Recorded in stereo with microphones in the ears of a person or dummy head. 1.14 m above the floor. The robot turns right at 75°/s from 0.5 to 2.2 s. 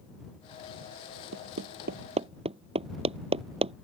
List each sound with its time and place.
1.3 s hammering: 85° right; by 3.7 s 30° right (ahead or behind)